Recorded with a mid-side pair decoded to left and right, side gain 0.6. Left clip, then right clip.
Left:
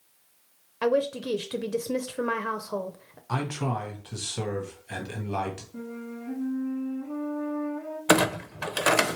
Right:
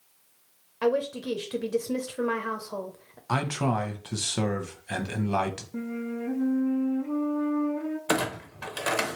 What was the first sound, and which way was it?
A woman speaking, 15° left.